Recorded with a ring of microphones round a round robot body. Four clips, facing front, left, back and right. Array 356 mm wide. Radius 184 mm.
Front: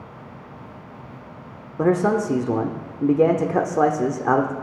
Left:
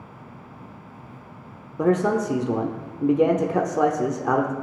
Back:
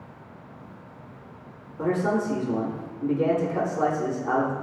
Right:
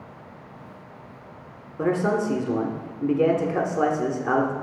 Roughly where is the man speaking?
Ahead.